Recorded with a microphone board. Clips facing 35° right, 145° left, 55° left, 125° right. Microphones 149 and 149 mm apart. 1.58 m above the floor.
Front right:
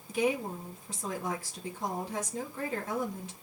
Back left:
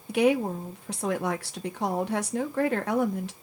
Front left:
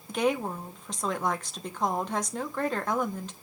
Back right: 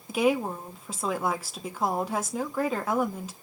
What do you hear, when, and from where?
0.1 s a woman speaking: 150° left, 1.0 m